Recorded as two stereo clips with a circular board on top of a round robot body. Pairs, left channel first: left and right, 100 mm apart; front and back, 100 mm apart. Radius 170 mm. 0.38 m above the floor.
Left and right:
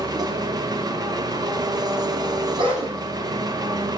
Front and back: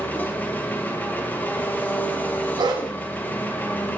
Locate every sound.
0.0 s an engine running: 65° right, 1.0 m
2.6 s a dog barking: 130° right, 1.4 m